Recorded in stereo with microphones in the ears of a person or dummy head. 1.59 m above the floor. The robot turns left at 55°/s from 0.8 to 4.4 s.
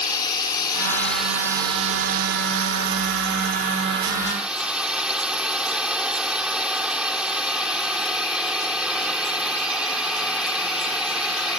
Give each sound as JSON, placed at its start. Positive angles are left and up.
{"t": 0.0, "sound": "a drone", "azimuth_deg": 20}